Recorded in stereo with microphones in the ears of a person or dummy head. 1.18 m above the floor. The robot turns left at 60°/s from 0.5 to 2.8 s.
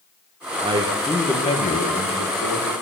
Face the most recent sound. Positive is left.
turn(degrees=75)